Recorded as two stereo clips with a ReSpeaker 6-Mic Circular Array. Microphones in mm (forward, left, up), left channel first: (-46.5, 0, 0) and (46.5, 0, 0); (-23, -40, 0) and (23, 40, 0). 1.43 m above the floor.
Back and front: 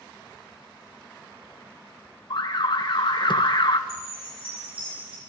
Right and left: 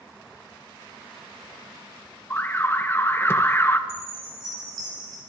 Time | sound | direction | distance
2.3 | an alarm | straight behind | 0.7 m
3.9 | a chime | 20° left | 5 m